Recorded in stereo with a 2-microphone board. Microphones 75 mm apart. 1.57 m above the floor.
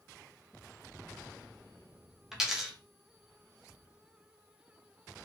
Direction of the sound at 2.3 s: 5° right (ahead or behind).